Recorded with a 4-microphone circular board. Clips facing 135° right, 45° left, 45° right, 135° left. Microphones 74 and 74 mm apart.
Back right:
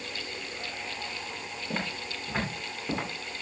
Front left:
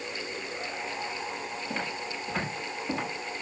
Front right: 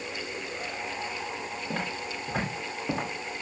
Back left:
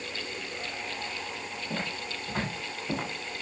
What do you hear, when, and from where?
1.7 s footsteps: 60° right, 8.5 m; by 3.4 s 55° right, 10.5 m